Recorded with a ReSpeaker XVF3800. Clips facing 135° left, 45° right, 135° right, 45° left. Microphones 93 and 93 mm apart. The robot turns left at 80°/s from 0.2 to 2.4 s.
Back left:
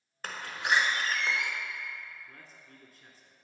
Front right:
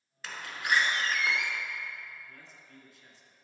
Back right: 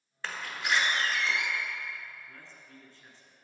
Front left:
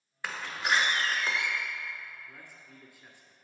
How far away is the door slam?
About 1.0 m.